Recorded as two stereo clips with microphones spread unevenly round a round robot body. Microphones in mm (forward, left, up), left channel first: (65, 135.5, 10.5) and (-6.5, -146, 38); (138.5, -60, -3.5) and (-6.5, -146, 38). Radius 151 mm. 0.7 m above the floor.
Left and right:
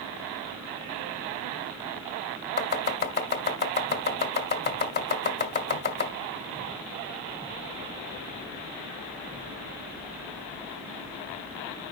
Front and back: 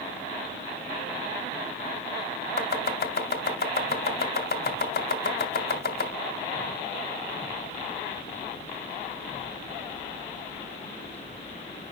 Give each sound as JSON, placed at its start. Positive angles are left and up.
{"t": 2.6, "sound": "chopping", "azimuth_deg": 20, "distance_m": 1.7}